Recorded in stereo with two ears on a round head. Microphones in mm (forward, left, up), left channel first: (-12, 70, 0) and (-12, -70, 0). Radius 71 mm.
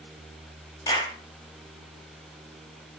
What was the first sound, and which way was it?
A clap, 25° left (ahead or behind).